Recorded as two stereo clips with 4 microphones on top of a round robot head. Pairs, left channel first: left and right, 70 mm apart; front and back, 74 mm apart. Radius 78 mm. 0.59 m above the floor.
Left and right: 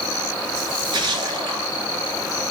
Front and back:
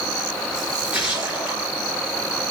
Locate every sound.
0.6 s a splash: 100° right, 3.5 m